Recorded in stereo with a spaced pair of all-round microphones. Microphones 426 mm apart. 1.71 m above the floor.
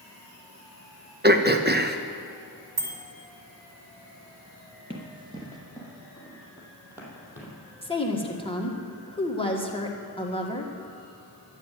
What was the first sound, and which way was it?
Throat clearing, 25° right (ahead or behind).